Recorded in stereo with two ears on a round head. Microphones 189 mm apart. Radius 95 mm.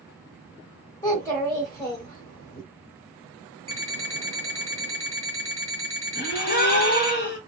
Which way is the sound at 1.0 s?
15° left (ahead or behind).